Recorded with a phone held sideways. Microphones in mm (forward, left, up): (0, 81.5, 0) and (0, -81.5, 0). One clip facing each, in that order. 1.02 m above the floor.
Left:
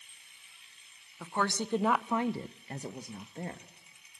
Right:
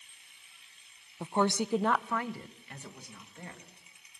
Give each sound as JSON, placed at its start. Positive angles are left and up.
{"t": 1.2, "sound": "a woman speaking", "side_deg": -25, "distance_m": 0.9}